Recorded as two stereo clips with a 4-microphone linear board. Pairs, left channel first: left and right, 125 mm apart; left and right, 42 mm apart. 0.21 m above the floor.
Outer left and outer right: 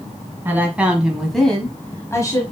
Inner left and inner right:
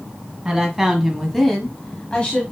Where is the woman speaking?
15° right (ahead or behind), 1.5 m; by 2.4 s 30° left (ahead or behind), 1.2 m.